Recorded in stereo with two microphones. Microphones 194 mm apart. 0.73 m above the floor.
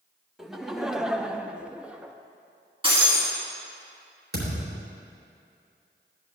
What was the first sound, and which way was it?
Laughter, centre (ahead or behind).